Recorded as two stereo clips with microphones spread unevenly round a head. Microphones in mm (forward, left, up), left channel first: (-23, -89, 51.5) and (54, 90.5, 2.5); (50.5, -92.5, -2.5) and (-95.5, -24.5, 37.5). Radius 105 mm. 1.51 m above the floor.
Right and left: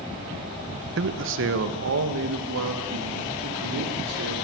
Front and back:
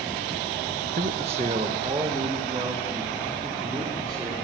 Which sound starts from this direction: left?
A man speaking, at 1.0 s.